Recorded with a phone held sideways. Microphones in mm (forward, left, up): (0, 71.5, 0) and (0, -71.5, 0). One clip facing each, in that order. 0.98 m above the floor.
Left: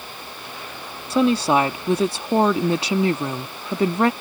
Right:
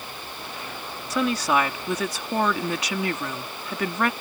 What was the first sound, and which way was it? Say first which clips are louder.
A woman speaking: left 5 dB; 30° left (ahead or behind).